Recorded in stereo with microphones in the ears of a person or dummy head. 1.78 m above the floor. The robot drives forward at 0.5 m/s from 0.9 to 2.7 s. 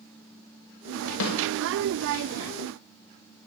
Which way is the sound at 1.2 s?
70° left (ahead or behind).